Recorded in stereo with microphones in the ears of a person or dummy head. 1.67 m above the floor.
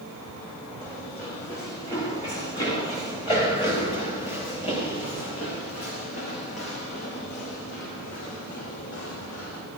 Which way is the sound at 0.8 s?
20° left (ahead or behind).